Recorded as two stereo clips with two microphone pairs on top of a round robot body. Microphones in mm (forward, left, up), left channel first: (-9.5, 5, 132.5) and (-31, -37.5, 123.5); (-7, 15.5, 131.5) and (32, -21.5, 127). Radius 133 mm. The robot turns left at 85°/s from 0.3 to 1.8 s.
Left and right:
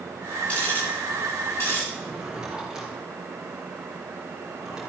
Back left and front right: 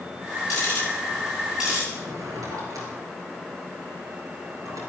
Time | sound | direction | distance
0.5 | ticking | 130° left | 8.5 m
1.9 | a drawer | 40° right | 5 m